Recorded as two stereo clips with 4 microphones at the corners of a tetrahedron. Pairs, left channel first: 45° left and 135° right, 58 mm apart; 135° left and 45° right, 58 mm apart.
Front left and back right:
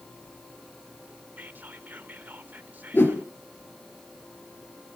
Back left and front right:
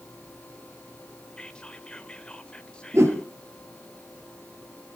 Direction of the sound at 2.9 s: 10° right.